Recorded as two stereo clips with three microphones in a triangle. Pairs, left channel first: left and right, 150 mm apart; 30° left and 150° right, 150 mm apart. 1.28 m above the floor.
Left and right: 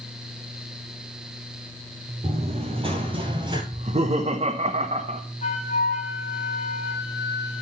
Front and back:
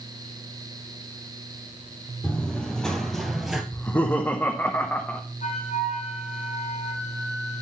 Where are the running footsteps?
50° right, 2 m; by 3.6 s 65° right, 1.4 m.